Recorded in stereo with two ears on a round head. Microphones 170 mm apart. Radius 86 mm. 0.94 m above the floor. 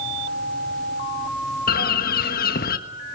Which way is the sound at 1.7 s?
50° left (ahead or behind).